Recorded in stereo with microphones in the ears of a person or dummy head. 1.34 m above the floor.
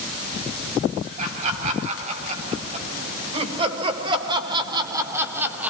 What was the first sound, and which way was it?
Laughter, 45° right (ahead or behind).